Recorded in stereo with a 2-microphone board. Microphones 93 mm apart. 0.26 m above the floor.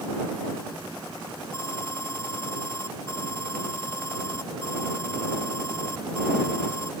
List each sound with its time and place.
1.5 s an alarm: 30° left (ahead or behind)